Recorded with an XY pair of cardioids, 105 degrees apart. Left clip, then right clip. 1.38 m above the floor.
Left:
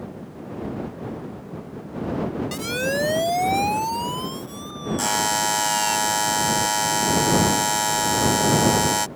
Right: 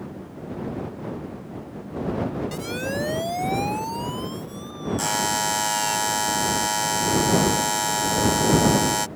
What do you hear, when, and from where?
2.5 s a siren: 35° left; by 6.0 s 25° left
5.0 s a buzzer: 10° left